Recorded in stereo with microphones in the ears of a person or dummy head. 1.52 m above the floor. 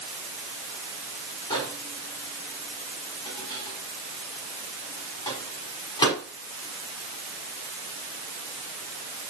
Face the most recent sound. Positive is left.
turn(degrees=25)  # may be behind; listen again after turning